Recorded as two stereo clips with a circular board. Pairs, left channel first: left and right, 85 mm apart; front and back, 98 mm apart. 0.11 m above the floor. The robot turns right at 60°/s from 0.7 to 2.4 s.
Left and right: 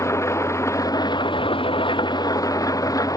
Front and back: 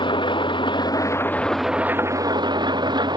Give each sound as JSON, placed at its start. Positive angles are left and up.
{"t": 0.0, "sound": "an engine running", "azimuth_deg": 35}